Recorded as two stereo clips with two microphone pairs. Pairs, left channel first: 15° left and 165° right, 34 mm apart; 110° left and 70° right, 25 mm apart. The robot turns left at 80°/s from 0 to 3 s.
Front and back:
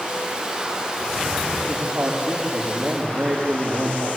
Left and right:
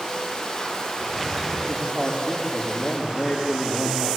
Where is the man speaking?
110° right, 5 m; by 4.1 s 145° left, 5 m.